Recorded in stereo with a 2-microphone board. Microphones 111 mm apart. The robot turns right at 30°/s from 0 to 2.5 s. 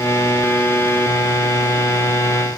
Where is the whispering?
No whispering in this recording.